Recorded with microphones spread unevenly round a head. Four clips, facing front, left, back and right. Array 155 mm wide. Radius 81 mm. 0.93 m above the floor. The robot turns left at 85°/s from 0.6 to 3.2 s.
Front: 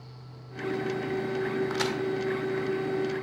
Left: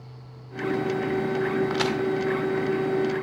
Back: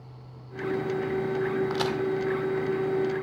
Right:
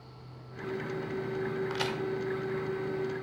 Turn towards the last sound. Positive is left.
turn(degrees=5)